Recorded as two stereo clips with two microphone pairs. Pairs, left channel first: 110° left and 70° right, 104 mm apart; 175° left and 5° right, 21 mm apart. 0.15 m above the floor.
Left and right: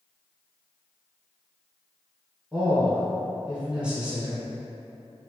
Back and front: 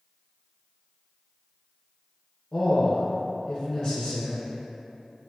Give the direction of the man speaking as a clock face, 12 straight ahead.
5 o'clock.